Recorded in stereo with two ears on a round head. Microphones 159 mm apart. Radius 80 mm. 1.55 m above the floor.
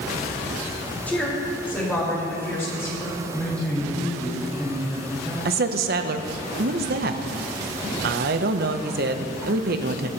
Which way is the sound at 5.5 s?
55° right (ahead or behind).